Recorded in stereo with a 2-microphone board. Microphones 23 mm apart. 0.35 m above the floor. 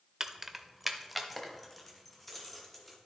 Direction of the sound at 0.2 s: 20° right (ahead or behind).